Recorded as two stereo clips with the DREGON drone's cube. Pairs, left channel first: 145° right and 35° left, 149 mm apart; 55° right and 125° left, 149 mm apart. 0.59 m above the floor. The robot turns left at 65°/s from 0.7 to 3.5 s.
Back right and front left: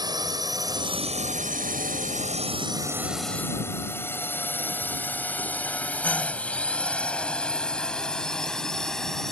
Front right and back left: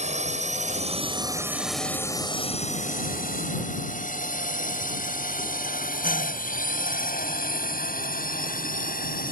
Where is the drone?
95° left; by 9.3 s 60° right.